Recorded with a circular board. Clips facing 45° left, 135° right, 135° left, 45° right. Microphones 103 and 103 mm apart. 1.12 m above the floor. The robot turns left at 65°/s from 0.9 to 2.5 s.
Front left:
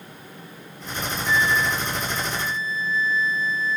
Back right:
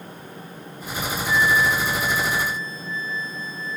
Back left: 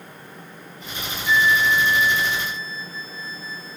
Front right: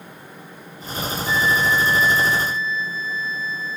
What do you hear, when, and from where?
1.3 s a flute: 95° right, 5 m; by 3.8 s 175° right, 5 m